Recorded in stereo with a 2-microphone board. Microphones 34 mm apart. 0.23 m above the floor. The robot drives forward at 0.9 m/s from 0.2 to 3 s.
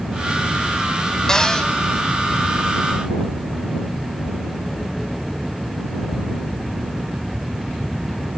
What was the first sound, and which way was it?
A cupboard door, 20° left (ahead or behind).